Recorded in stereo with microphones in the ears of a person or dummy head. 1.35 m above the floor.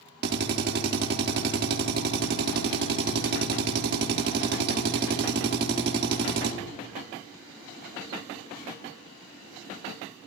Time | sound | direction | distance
0.2 | a drill | 55° right (ahead or behind) | 1.8 m